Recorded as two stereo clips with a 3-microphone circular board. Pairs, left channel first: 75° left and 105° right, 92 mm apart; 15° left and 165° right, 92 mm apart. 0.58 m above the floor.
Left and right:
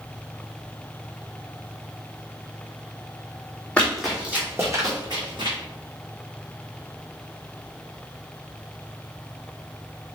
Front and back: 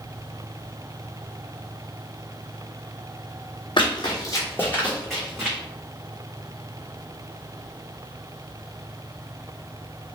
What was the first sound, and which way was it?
Running footsteps, straight ahead.